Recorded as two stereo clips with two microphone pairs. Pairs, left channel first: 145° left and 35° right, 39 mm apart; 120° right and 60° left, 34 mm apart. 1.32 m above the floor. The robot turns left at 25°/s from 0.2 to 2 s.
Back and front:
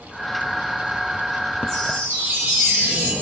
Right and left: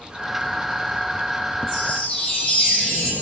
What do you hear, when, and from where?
1.7 s a chime: 45° right, 8.5 m; by 3.1 s 55° right, 8.5 m